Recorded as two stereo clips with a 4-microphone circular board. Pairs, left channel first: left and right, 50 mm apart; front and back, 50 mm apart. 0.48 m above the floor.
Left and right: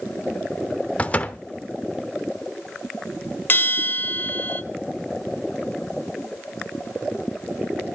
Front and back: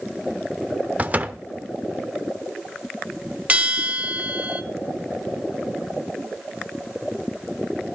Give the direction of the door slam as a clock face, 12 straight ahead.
7 o'clock.